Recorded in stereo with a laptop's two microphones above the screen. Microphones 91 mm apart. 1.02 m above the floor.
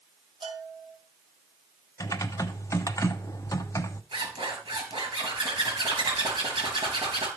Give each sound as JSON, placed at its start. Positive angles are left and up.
{"t": 0.4, "sound": "a bell", "side_deg": -60, "distance_m": 3.5}
{"t": 2.0, "sound": "typing on a keyboard", "side_deg": 35, "distance_m": 0.8}
{"t": 4.1, "sound": "a zipper", "side_deg": -65, "distance_m": 4.0}